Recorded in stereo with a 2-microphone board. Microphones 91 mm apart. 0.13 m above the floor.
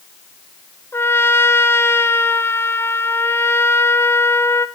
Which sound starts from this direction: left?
A trumpet, at 0.9 s.